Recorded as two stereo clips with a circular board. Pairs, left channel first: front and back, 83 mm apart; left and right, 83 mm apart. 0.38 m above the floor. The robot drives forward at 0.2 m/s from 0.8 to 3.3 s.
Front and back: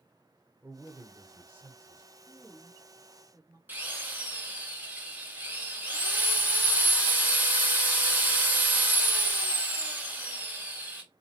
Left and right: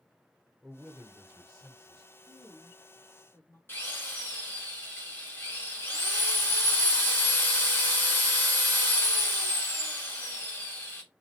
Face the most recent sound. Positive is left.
turn(degrees=130)